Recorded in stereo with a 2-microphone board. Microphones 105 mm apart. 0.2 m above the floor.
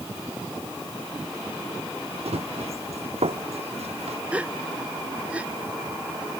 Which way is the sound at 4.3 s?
10° right (ahead or behind).